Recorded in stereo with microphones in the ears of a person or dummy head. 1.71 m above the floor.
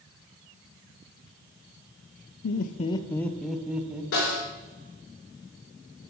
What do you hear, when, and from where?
2.4 s laughter: 65° left (ahead or behind), 0.6 m; by 4.0 s 10° right (ahead or behind), 1.4 m
4.1 s a snare drum: 70° left (ahead or behind), 4.5 m